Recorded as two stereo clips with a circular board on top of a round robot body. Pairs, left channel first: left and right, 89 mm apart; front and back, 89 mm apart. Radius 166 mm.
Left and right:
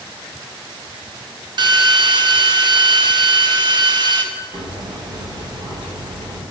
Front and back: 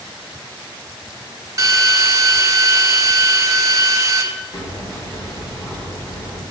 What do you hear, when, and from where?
1.6 s a drill: 125° right, 1.0 m
4.5 s hammering: 55° right, 2.5 m